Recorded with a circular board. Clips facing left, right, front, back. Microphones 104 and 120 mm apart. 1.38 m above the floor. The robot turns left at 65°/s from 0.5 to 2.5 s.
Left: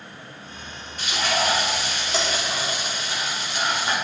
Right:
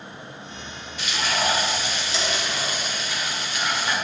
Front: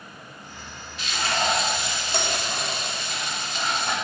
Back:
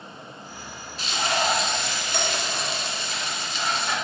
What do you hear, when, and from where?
1.0 s frying: 130° left, 2 m; by 4.0 s 35° left, 2 m